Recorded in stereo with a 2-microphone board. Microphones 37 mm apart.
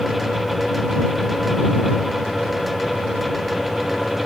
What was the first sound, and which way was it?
Only background noise.